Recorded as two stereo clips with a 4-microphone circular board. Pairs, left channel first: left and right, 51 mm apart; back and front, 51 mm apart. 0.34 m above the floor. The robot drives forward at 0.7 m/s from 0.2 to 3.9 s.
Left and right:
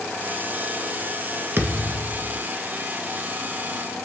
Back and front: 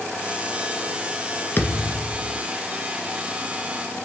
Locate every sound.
1.6 s a thud: 135° right, 1.5 m; by 2.4 s 145° right, 1.9 m